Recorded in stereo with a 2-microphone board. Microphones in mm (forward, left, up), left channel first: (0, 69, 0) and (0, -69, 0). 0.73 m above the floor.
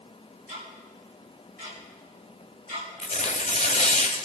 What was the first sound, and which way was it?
Ticking, 80° right.